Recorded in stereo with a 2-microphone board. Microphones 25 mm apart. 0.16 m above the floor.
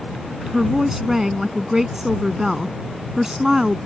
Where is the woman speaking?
15° right (ahead or behind).